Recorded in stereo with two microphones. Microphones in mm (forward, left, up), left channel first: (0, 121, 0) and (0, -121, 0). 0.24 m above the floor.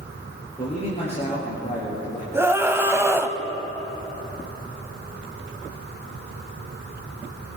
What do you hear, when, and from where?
0.6 s a man speaking: 25° left (ahead or behind), 4.5 m
2.3 s a scream: 10° right (ahead or behind), 1.2 m